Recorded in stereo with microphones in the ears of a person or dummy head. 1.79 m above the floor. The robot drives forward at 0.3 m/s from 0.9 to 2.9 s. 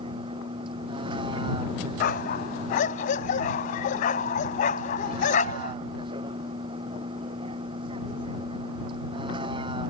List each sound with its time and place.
0.0 s a vehicle: 25° right (ahead or behind)
2.0 s a dog barking: 45° left (ahead or behind); by 5.8 s 40° left (ahead or behind)